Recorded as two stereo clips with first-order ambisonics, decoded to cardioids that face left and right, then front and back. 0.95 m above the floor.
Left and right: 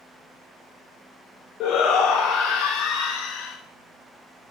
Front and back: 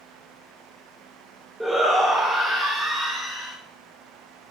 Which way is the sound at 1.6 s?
95° left.